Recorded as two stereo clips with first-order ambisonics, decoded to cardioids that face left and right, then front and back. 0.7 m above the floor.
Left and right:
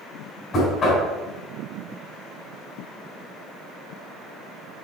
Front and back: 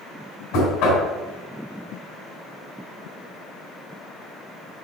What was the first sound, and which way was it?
Knocking, 25° left.